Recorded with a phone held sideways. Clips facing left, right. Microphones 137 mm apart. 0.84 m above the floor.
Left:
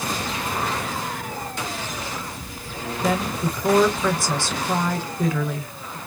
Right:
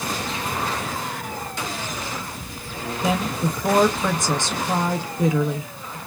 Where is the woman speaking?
20° right (ahead or behind), 0.7 m.